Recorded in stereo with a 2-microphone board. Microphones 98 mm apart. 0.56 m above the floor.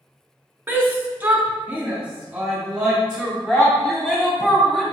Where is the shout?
20° right (ahead or behind), 1.1 m; by 4.8 s centre (ahead or behind), 2 m.